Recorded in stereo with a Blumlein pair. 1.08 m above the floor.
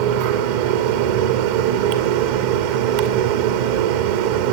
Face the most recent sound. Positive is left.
turn(degrees=-50)